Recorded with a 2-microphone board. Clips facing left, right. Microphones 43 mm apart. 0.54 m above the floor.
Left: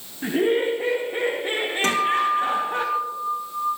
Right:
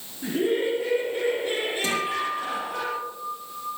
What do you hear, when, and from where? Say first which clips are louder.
0.2 s laughter: left 3 dB; 45° left (ahead or behind), 4.5 m
1.8 s a guitar: left 9 dB; 60° left (ahead or behind), 6.5 m